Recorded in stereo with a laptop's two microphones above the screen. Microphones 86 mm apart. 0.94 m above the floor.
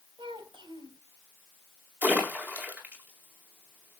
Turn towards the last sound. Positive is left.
turn(degrees=-20)  # may be behind; listen again after turning